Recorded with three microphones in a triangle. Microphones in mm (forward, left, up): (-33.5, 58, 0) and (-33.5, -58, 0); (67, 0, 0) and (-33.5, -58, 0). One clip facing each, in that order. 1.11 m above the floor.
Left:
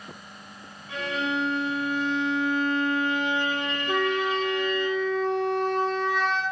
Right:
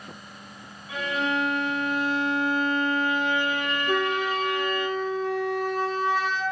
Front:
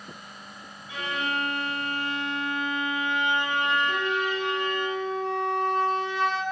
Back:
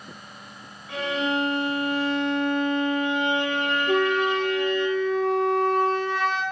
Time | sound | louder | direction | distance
0.9 | a violin | right 1 dB, back 5 dB | 175° right | 4.5 m
3.9 | a flute | left 1 dB, back 6 dB | 175° right | 2.5 m